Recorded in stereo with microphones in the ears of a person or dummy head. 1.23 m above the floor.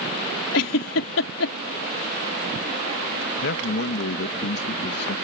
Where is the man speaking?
60° left (ahead or behind).